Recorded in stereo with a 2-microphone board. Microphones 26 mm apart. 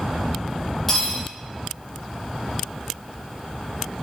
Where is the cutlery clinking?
15° left (ahead or behind), 0.7 m.